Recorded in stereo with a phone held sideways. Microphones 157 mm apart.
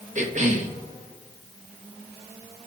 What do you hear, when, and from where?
0.1 s a cough: 50° right (ahead or behind), 2.5 m